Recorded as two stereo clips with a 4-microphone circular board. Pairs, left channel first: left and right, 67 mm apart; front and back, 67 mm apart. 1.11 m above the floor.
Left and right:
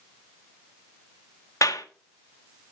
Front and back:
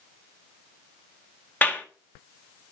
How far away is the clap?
About 1.3 m.